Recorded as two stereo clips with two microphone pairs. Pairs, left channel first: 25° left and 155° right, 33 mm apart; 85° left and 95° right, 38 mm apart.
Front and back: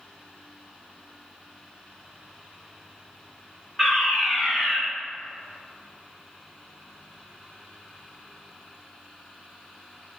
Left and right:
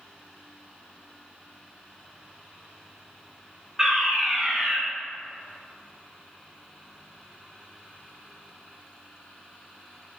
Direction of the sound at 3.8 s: 55° right.